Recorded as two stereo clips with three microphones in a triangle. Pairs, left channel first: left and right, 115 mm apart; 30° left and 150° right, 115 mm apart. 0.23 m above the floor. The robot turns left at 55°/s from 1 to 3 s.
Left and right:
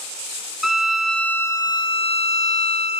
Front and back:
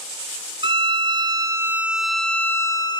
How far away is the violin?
About 0.7 m.